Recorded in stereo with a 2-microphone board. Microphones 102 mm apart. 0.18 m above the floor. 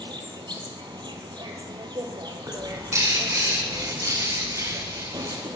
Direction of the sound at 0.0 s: 50° right (ahead or behind).